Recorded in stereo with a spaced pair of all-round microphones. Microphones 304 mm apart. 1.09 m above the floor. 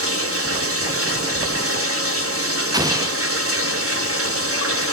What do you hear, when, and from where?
0.0 s running water: 45° right (ahead or behind), 1.5 m
2.7 s an explosion: 15° right (ahead or behind), 0.6 m